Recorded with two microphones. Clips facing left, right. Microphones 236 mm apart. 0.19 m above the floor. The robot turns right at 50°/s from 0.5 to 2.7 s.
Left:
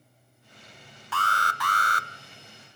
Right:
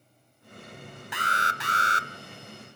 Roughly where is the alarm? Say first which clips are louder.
Left 2 dB; centre.